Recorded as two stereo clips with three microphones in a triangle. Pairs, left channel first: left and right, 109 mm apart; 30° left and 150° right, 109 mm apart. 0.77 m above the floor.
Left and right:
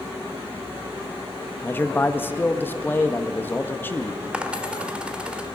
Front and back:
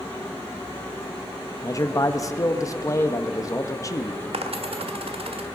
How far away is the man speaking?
About 0.8 m.